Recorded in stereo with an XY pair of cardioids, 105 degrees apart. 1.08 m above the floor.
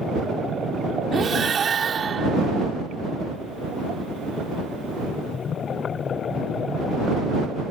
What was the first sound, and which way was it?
Breathing, 40° right.